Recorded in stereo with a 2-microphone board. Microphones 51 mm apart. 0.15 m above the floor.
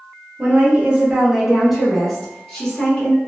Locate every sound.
0.4 s a woman speaking: 25° right (ahead or behind), 1.4 m; by 3.2 s 20° left (ahead or behind), 1.4 m